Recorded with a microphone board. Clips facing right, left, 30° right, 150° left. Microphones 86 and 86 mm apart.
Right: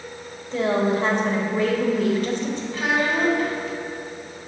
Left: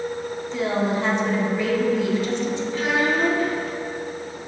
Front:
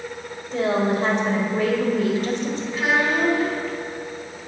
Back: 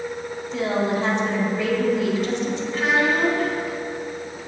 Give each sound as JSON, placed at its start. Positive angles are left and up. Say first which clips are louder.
{"t": 0.5, "sound": "a woman speaking", "louder": "right 3 dB, front 2 dB", "azimuth_deg": -65, "distance_m": 1.3}
{"t": 2.7, "sound": "a child speaking", "louder": "even, back 1 dB", "azimuth_deg": -110, "distance_m": 2.0}